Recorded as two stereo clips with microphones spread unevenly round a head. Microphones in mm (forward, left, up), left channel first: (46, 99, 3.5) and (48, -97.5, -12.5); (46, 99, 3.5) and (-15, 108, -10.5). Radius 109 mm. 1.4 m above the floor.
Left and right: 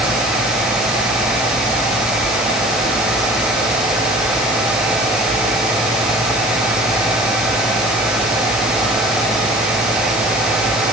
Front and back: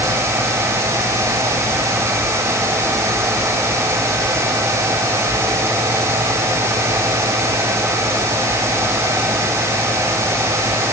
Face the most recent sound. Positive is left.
No sound to turn to.